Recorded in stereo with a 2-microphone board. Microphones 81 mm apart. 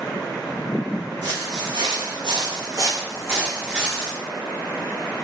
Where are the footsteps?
70° right (ahead or behind), 1.0 m; by 4.1 s 10° right (ahead or behind), 1.3 m.